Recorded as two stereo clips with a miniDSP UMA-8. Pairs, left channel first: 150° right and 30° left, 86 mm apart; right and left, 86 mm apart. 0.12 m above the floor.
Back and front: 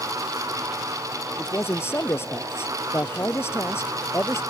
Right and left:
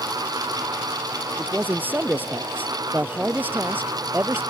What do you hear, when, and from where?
1.4 s a man speaking: 155° left